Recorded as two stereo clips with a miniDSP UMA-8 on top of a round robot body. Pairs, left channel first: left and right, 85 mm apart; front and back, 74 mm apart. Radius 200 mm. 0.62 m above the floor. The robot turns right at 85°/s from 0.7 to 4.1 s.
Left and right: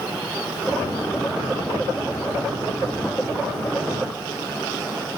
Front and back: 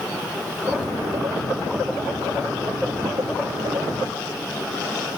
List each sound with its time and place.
Only background noise.